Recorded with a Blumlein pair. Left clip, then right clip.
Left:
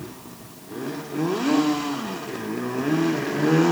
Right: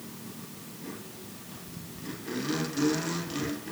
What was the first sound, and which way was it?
Only background noise.